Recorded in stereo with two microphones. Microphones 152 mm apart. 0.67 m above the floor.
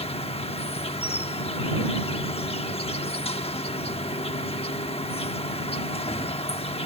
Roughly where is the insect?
Left.